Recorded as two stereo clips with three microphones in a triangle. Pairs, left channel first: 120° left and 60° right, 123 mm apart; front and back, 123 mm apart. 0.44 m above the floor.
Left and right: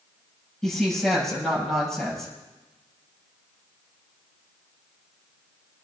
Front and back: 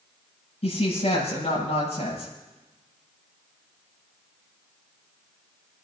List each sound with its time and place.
0.6 s a woman speaking: 35° left, 8 m